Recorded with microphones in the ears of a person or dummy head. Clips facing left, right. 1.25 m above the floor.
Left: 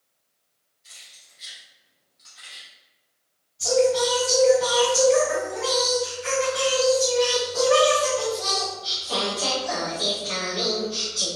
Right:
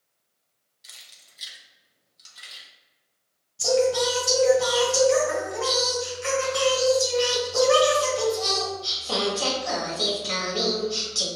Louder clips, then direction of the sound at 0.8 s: Even; 70° right (ahead or behind).